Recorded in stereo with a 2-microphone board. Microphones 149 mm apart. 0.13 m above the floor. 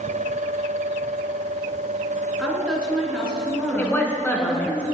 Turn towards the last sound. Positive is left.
turn(degrees=15)  # may be behind; listen again after turning